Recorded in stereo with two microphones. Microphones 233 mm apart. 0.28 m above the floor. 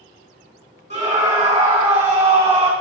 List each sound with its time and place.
0.9 s a scream: 30° right (ahead or behind), 3 m